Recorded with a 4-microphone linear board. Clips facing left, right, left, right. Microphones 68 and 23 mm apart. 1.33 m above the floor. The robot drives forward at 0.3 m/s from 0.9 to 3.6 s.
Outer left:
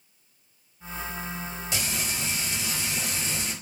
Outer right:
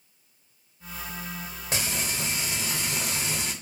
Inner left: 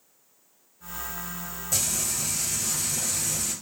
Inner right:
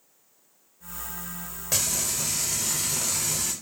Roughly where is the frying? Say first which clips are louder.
Outer right 2 dB, inner right 1 dB; right.